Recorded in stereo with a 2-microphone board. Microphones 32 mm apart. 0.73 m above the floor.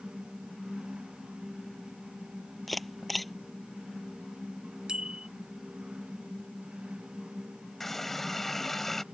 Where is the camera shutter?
Centre (ahead or behind).